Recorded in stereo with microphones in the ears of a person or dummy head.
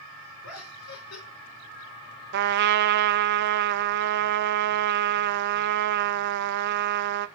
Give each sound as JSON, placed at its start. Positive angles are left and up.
{"t": 0.4, "sound": "laughter", "side_deg": 85, "distance_m": 5.0}
{"t": 2.3, "sound": "a trumpet", "side_deg": -55, "distance_m": 0.9}